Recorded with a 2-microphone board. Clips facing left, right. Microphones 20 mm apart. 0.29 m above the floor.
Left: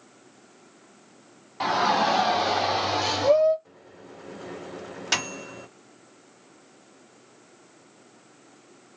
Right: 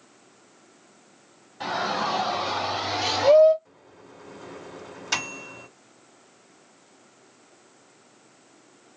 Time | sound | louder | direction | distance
1.6 | a shout | left 4 dB | 60° left (ahead or behind) | 1.9 m
3.6 | a microwave | left 3 dB | 25° left (ahead or behind) | 0.8 m